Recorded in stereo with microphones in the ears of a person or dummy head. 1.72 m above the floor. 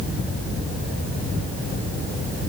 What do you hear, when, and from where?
Only background noise.